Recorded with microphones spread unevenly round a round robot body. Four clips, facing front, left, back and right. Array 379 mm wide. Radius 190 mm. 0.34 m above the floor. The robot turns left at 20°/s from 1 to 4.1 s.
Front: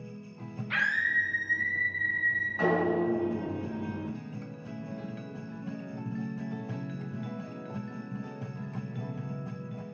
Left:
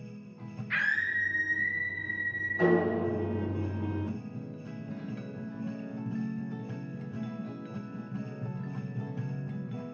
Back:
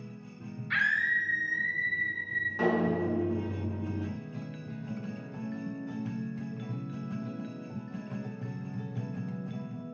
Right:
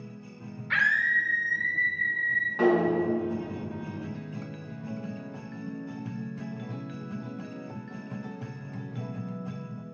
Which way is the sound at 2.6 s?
100° right.